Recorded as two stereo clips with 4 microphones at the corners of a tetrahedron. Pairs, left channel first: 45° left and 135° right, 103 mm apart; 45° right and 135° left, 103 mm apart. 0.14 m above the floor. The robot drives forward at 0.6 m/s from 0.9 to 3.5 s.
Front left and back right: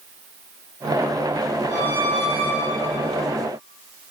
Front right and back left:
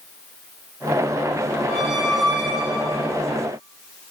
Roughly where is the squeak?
Ahead left.